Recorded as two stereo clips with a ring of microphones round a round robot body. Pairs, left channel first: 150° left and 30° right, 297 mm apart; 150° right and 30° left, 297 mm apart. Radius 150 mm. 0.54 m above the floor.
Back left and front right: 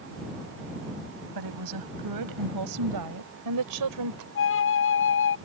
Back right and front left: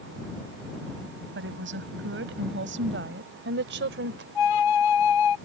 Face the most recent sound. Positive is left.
turn(degrees=-160)